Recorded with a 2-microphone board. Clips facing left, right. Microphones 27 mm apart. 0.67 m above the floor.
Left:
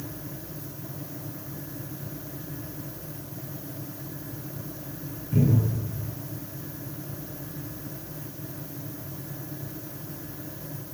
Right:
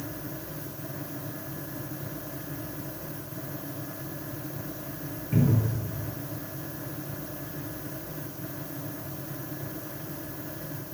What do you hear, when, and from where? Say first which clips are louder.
5.3 s a cupboard door: left 2 dB; 45° right (ahead or behind), 4 m